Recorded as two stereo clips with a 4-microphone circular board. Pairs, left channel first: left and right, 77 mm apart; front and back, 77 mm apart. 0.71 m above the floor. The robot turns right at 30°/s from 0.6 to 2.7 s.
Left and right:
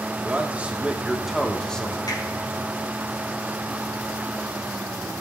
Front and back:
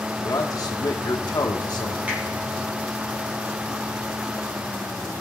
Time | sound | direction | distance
0.2 | a man speaking | 25° right | 1.2 m
2.1 | a finger snap | 110° left | 4.5 m